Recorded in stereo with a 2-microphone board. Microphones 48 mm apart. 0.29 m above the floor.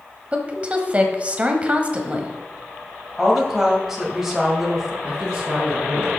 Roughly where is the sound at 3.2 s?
Centre.